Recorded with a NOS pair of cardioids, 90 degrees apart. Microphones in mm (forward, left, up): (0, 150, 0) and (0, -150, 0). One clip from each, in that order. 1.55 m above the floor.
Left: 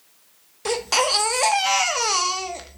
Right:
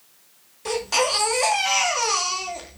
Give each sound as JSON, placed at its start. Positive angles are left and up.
{"t": 0.7, "sound": "a baby crying", "azimuth_deg": 35, "distance_m": 1.6}